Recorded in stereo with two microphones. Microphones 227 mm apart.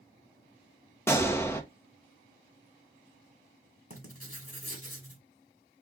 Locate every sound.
1.1 s a gunshot: 10° left (ahead or behind), 0.7 m
3.9 s writing: 80° left, 1.5 m